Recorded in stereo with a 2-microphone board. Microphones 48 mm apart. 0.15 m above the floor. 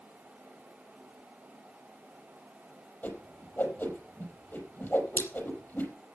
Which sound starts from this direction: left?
A whoosh, at 3.0 s.